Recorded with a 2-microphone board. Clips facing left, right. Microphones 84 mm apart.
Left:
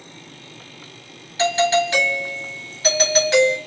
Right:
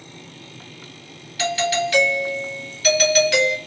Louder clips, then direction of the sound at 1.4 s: Left 4 dB; 25° left (ahead or behind).